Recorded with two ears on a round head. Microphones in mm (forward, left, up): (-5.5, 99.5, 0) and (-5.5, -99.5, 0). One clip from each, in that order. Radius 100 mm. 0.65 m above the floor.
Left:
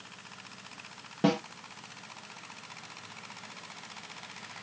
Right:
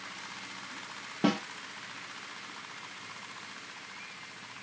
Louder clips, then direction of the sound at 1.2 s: Left 2 dB; 5° left (ahead or behind).